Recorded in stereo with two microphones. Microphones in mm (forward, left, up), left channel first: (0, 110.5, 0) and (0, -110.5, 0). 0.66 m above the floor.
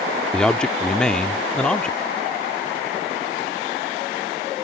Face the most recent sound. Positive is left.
turn(degrees=5)  # may be behind; listen again after turning